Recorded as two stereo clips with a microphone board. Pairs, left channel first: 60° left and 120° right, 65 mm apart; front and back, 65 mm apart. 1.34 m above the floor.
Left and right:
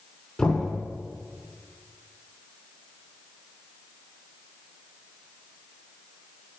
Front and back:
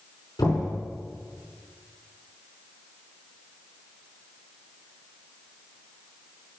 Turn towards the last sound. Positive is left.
turn(degrees=-15)